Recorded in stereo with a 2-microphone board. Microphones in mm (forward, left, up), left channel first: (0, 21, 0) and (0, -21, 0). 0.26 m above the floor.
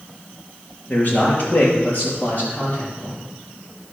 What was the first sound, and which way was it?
A man speaking, 45° left (ahead or behind).